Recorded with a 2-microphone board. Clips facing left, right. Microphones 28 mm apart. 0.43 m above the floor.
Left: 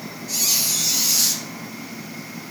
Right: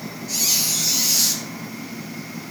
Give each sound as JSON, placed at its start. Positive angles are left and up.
{"t": 0.3, "sound": "a squeak", "side_deg": -5, "distance_m": 1.6}